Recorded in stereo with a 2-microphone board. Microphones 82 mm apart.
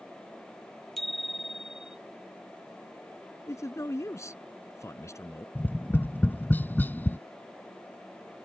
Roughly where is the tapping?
Left.